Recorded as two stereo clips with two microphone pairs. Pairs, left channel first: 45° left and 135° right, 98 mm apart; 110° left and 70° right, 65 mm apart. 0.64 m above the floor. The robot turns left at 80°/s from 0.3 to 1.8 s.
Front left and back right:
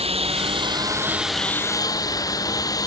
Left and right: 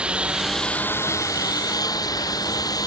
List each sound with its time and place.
0.0 s a lawn mower: 140° right; by 2.9 s 100° left